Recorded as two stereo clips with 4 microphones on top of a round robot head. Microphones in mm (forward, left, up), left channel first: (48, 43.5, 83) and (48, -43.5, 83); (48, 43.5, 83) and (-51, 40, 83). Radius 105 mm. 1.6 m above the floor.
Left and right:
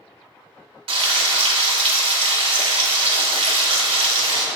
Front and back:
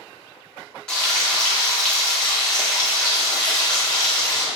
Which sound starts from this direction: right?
Frying, at 0.9 s.